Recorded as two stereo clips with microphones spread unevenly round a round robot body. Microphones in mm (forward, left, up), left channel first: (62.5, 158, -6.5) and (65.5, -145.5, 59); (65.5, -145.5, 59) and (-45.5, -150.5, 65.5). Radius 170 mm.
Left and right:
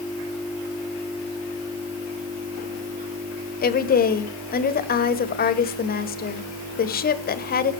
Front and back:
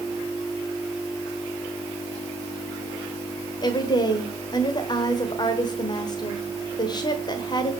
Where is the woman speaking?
45° left, 1.3 m.